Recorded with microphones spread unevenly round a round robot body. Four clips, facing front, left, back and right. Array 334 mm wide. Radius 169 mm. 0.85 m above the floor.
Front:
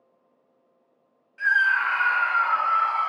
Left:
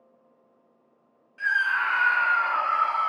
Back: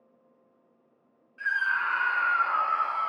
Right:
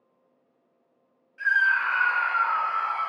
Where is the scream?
30° left, 1.1 m; by 3.1 s 135° left, 0.8 m.